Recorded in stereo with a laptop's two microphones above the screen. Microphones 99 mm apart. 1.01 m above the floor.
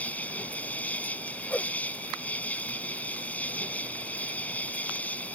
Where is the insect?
15° left (ahead or behind).